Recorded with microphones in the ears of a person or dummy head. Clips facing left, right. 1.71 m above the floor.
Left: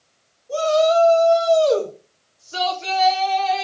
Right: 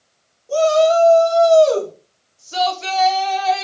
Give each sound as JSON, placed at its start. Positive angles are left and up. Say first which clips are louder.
{"t": 0.5, "sound": "a shout", "louder": "right 3 dB", "side_deg": -75, "distance_m": 4.5}